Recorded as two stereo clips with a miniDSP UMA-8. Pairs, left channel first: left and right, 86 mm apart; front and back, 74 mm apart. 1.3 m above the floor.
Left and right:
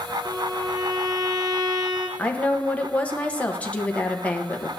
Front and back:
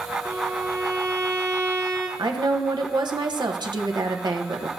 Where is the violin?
130° right, 1.8 m.